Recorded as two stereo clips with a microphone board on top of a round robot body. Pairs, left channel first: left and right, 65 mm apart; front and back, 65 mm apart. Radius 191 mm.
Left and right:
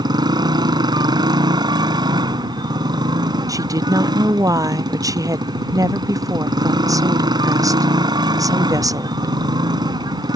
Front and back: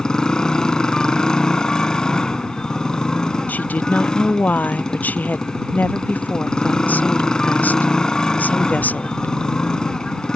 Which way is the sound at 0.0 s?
80° right.